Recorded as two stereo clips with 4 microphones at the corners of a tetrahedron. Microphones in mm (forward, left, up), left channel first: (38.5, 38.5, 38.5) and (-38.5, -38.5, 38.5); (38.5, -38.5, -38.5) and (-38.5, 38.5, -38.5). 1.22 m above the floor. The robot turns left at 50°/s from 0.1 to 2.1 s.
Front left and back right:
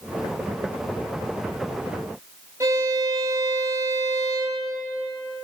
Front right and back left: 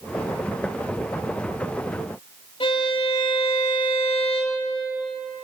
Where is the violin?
75° right, 4 m.